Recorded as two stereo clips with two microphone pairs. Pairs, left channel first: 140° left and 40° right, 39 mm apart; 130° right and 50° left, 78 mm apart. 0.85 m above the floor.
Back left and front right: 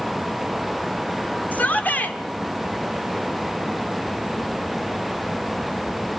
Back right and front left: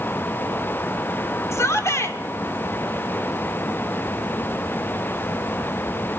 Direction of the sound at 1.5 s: Straight behind.